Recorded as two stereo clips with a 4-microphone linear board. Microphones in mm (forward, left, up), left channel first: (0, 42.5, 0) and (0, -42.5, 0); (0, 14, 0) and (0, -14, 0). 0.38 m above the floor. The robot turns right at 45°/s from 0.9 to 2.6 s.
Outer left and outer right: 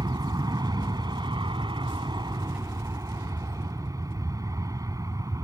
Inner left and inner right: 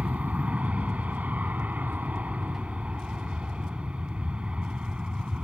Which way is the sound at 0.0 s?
125° right.